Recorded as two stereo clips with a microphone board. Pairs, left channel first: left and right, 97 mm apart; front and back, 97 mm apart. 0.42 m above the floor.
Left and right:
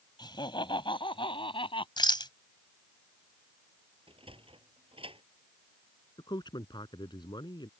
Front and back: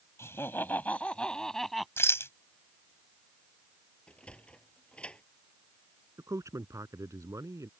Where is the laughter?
60° left; by 1.9 s 90° left.